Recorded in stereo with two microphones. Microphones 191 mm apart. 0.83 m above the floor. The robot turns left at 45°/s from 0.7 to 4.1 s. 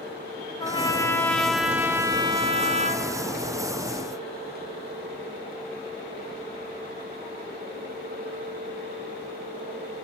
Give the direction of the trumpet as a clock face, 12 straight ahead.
11 o'clock.